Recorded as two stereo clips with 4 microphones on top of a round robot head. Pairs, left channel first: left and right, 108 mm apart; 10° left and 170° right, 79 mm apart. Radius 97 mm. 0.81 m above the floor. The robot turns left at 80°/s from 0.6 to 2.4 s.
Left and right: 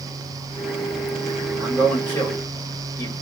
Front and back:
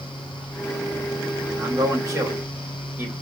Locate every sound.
1.6 s a man speaking: 165° right, 1.4 m; by 3.1 s 130° left, 1.4 m